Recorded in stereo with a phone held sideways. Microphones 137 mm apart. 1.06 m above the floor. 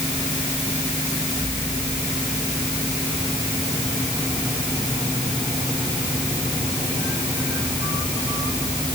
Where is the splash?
I don't hear a splash.